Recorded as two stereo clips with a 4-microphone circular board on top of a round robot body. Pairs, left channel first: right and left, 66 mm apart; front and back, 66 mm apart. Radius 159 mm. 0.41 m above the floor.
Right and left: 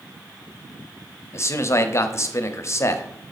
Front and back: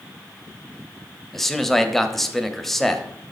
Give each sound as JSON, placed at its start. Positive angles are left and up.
{"t": 1.3, "sound": "a man speaking", "azimuth_deg": -85, "distance_m": 0.9}